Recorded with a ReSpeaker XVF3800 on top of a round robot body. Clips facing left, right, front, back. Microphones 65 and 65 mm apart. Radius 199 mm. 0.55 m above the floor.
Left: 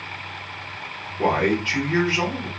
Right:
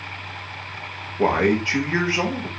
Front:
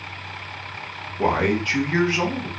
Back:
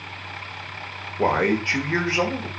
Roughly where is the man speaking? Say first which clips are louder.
Right 2 dB, even; behind right.